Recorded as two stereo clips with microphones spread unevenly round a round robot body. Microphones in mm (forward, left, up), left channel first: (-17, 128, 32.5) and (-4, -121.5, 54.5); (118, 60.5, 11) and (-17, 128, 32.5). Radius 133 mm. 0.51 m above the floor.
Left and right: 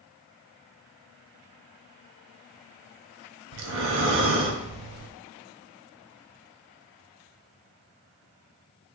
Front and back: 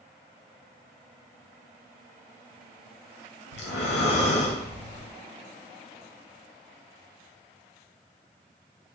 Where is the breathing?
45° right, 0.6 m.